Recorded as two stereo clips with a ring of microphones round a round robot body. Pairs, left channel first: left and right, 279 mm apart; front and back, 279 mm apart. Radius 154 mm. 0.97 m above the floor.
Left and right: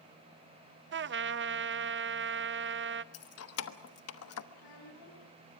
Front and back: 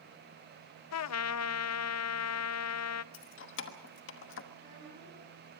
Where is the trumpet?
35° right, 0.6 m.